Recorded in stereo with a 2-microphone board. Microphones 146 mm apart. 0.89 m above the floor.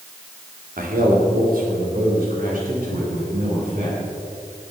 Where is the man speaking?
75° right (ahead or behind), 2.5 m; by 4.0 s 70° right (ahead or behind), 6 m.